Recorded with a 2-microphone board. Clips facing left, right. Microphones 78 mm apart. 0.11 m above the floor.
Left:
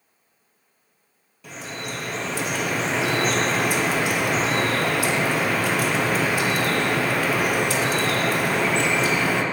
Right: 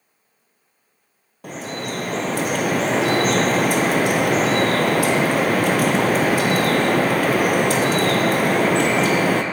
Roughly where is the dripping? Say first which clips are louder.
Right 5 dB; right.